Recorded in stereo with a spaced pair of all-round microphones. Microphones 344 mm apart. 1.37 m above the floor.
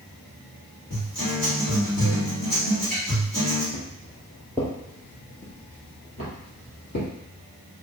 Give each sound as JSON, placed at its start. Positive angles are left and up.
{"t": 0.9, "sound": "a guitar", "side_deg": 75, "distance_m": 1.8}
{"t": 3.7, "sound": "footsteps", "side_deg": -15, "distance_m": 1.5}